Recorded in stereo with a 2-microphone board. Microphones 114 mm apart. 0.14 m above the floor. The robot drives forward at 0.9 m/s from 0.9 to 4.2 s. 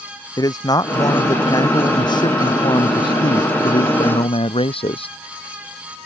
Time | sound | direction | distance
0.4 | a man speaking | 35° left (ahead or behind) | ?